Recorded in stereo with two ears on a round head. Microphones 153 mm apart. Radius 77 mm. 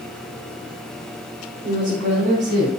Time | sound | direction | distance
1.6 | a woman speaking | 55° right (ahead or behind) | 1.8 m